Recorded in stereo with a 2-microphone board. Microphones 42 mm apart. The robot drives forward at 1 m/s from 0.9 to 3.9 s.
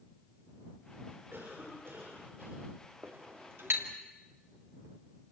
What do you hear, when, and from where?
1.3 s a cough: 65° right (ahead or behind), 7.5 m; by 2.7 s 55° right (ahead or behind), 8 m
3.0 s a clink: 65° right (ahead or behind), 3 m; by 3.9 s 75° right (ahead or behind), 3 m